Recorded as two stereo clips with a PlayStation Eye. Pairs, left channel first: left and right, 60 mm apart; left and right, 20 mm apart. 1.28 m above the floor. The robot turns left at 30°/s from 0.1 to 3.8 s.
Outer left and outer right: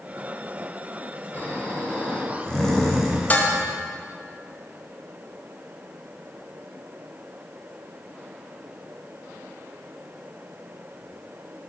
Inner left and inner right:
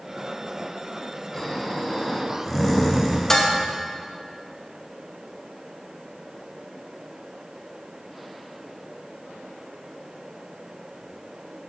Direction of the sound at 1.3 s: 50° left.